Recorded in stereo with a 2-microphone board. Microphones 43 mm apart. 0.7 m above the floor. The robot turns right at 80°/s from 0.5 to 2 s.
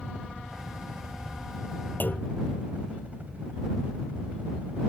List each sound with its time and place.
0.0 s a helicopter: 160° right; by 4.9 s 40° right
2.0 s a clunk: 45° left (ahead or behind)